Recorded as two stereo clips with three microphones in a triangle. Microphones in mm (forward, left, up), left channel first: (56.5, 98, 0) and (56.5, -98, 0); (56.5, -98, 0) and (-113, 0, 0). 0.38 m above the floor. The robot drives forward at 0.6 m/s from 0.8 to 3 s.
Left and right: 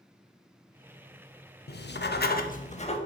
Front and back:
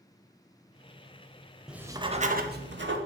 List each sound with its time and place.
1.7 s writing: 65° left, 0.5 m; by 3.0 s 145° left, 0.7 m